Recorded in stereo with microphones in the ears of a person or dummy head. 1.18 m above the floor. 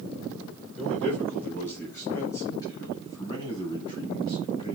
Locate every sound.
0.8 s a man speaking: 10° left (ahead or behind), 4 m; by 4.8 s 25° left (ahead or behind), 7.5 m